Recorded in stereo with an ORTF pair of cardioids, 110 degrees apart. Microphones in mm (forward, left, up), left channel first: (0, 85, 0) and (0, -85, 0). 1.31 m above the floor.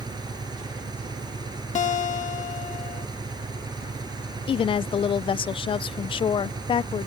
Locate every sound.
0.0 s an engine running: 25° right
1.8 s a guitar: 45° left
4.5 s a woman speaking: 35° left